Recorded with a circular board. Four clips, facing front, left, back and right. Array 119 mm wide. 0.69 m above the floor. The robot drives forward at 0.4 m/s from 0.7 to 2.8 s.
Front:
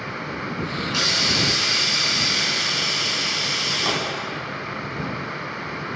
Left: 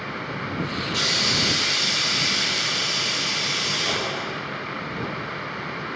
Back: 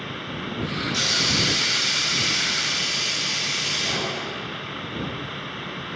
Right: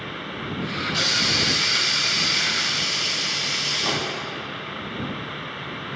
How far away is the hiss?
About 2.5 m.